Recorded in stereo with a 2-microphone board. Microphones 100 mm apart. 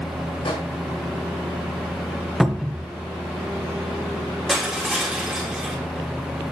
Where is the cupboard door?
Centre (ahead or behind), 0.8 m.